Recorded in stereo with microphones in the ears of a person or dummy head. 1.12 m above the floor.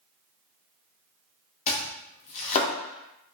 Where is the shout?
I don't hear a shout.